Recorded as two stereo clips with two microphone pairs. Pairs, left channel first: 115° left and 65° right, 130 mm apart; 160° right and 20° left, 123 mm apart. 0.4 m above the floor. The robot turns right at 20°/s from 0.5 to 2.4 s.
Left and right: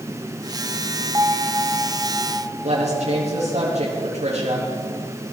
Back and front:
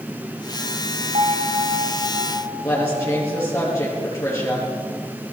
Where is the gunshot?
No gunshot in this recording.